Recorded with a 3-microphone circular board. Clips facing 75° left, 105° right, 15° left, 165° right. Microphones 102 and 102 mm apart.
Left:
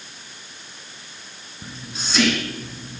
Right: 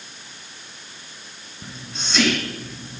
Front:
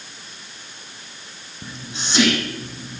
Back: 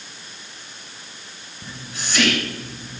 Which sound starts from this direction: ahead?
Whispering, at 1.6 s.